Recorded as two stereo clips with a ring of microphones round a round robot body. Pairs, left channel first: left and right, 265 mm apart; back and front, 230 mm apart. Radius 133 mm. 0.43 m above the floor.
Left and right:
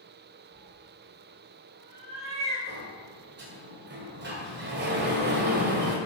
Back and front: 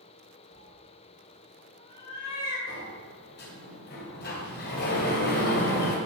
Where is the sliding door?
135° right, 2 m.